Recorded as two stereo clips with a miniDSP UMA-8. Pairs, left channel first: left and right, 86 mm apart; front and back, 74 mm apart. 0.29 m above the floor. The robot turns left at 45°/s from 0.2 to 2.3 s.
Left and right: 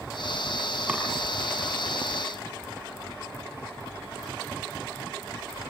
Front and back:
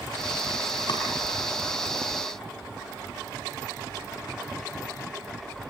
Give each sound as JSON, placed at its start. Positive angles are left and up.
{"t": 0.9, "sound": "chopping", "azimuth_deg": -15, "distance_m": 5.0}